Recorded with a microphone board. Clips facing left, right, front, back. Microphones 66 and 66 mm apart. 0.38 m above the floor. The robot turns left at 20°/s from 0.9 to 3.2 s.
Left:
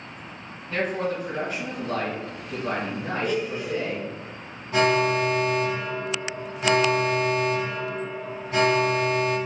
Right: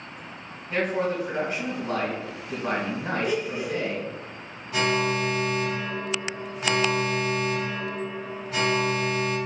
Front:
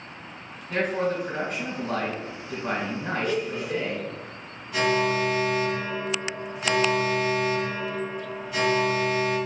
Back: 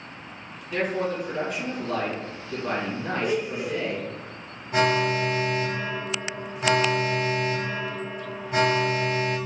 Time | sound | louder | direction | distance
0.7 | a man speaking | right 1 dB, front 1 dB | 20° right | 1.7 m
3.2 | a blender | left 2 dB, back 2 dB | 140° right | 0.7 m
4.7 | an alarm | left 4 dB, back 1 dB | 135° left | 1.2 m